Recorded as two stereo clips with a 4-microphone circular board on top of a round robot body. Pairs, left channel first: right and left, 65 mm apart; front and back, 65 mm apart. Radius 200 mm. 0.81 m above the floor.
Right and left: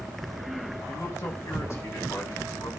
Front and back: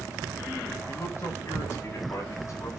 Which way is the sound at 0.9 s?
50° right.